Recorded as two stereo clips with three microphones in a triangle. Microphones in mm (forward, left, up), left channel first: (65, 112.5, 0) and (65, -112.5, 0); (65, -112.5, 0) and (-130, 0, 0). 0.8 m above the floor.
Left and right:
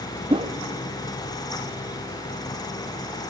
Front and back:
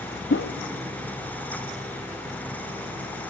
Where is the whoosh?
25° right, 0.6 m.